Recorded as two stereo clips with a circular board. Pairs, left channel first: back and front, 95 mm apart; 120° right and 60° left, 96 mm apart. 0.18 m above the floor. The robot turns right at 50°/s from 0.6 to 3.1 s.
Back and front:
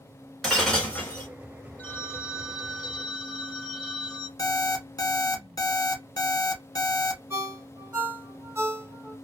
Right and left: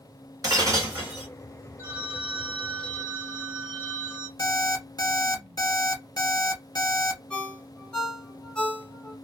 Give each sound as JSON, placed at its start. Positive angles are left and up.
{"t": 0.4, "sound": "breaking glass", "azimuth_deg": 95, "distance_m": 1.4}
{"t": 1.8, "sound": "a phone ringing", "azimuth_deg": 115, "distance_m": 1.0}
{"t": 4.4, "sound": "an alarm clock", "azimuth_deg": -150, "distance_m": 1.0}
{"t": 7.3, "sound": "a ringtone", "azimuth_deg": -50, "distance_m": 1.2}